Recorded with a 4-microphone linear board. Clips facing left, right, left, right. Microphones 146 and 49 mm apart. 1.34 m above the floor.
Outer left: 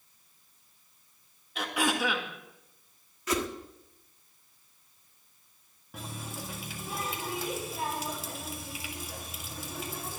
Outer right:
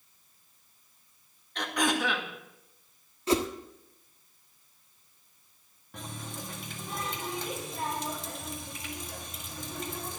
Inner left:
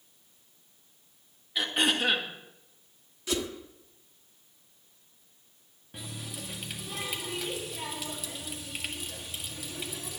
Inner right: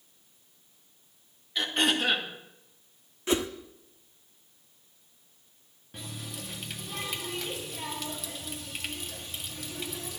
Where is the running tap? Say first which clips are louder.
Even, even; 5° left (ahead or behind), 1.7 m.